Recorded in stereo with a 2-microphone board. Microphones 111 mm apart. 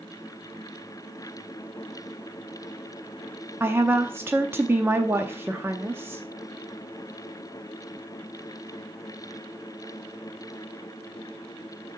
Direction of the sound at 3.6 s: 20° right (ahead or behind).